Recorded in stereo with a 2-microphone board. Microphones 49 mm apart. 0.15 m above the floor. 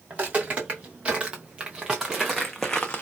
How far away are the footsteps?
About 1.8 m.